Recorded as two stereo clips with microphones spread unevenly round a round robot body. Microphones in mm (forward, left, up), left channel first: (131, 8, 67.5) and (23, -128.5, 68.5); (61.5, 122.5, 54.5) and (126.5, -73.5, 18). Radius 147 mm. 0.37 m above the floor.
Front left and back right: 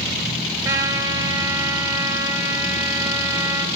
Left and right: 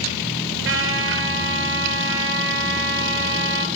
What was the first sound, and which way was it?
A trumpet, 60° right.